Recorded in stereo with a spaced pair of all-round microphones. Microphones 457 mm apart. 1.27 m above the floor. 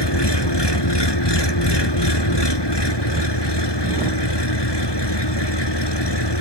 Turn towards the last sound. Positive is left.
turn(degrees=55)  # may be behind; listen again after turning